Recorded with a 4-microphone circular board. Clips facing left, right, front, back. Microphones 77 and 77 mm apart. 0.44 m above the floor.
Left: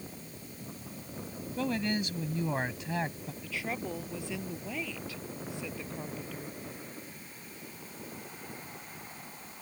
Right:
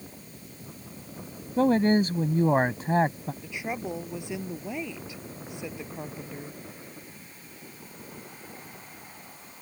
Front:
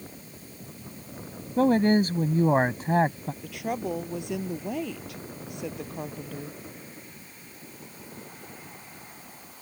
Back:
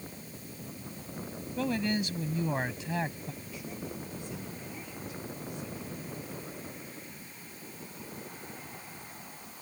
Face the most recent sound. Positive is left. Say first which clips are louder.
# right 2 dB, front 14 dB
turn(degrees=-20)